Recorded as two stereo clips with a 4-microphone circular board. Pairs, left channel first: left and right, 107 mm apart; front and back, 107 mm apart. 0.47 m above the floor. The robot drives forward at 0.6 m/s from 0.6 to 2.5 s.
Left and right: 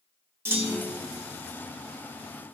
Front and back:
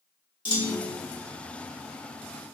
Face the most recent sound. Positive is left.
turn(degrees=-95)